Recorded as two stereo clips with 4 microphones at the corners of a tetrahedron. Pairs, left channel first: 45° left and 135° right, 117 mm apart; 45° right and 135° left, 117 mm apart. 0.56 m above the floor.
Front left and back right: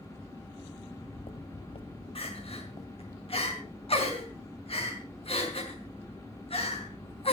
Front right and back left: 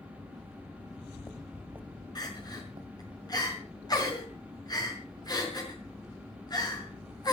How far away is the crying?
About 5 m.